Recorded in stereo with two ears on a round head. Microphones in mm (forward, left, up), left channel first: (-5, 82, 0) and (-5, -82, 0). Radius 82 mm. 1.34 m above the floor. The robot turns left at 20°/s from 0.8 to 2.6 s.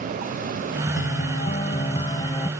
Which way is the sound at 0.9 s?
50° left.